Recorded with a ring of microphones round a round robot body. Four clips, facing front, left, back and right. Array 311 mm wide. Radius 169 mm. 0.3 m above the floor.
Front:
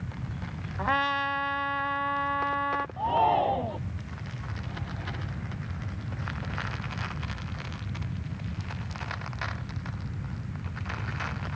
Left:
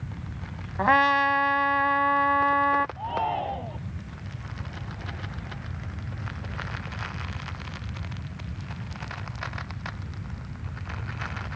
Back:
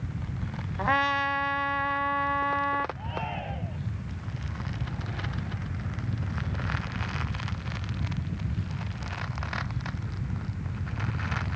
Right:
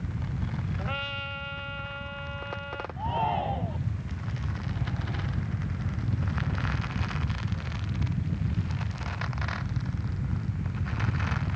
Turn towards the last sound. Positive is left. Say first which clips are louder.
# left 1 dB, front 11 dB
turn(degrees=0)